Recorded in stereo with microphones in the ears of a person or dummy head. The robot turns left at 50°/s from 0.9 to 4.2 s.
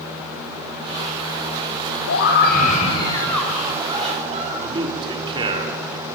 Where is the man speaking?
25° right (ahead or behind), 4.5 m.